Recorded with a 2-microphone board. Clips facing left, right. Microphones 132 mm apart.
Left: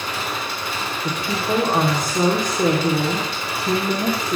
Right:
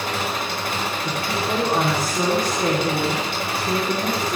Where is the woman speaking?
20° left (ahead or behind), 4 m.